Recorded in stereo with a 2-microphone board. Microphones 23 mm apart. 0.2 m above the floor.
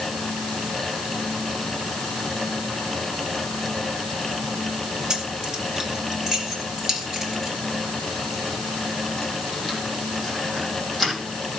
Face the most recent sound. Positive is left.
turn(degrees=5)  # may be behind; listen again after turning